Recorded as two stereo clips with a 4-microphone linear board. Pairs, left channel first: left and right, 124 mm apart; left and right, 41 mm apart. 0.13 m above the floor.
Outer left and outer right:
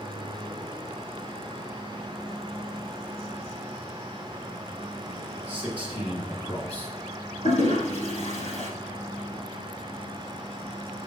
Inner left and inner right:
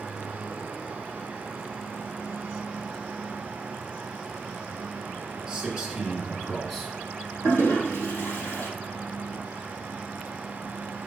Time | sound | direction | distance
5.5 | a man speaking | 15° right (ahead or behind) | 2.5 m
7.4 | a toilet flushing | 70° left (ahead or behind) | 3.5 m